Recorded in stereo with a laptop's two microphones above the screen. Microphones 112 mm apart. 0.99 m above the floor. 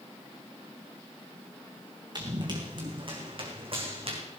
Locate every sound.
2.1 s running footsteps: 40° right (ahead or behind), 4.5 m; by 4.2 s 55° right (ahead or behind), 4 m